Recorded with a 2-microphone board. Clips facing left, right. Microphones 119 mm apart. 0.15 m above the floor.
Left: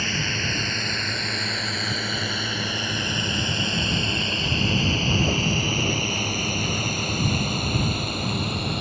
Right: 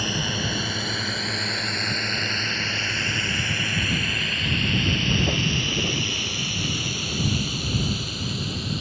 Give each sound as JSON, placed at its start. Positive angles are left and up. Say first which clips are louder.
{"t": 0.0, "sound": "a drone", "louder": "right 1 dB", "side_deg": -15}